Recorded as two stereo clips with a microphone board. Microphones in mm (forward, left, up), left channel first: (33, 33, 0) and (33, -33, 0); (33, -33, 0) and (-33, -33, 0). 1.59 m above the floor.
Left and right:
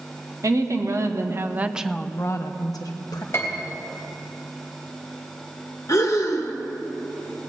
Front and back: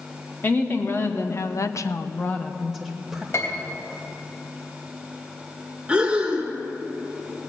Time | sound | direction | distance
0.4 | a woman speaking | 55° right | 1.6 m
3.3 | a piano | 35° left | 3 m
5.9 | breathing | 115° left | 1.2 m